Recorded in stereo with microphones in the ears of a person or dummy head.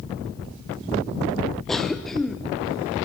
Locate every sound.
1.7 s a cough: centre (ahead or behind), 0.6 m